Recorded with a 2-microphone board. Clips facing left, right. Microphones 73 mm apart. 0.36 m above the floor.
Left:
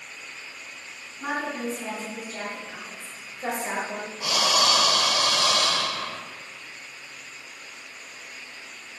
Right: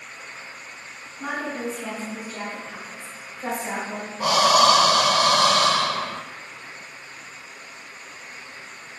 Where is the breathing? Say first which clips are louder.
Right 8 dB; 45° right (ahead or behind), 0.5 m.